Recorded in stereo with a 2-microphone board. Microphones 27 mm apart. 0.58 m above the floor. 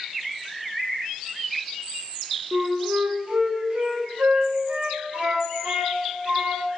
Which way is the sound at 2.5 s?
60° right (ahead or behind).